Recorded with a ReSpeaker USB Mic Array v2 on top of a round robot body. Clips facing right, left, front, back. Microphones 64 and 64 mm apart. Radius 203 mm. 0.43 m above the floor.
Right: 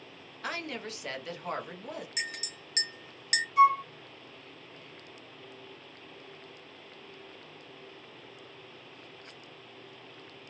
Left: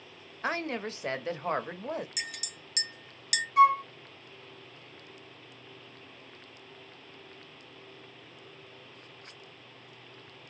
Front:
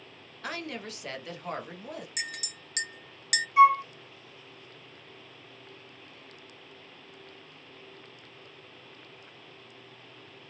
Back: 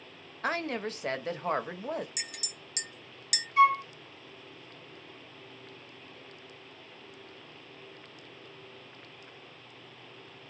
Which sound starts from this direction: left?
A flute, at 3.6 s.